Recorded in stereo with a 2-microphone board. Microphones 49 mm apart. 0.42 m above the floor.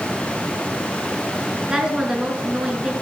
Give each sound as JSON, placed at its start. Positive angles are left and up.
{"t": 1.7, "sound": "a woman speaking", "side_deg": -15, "distance_m": 6.0}